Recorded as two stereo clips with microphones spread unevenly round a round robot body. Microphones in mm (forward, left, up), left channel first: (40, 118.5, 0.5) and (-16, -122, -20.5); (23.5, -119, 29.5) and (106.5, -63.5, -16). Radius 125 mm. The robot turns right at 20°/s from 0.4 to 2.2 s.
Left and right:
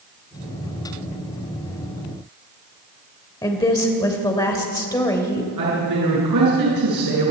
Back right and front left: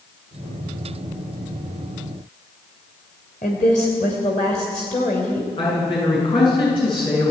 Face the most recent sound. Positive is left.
turn(degrees=-115)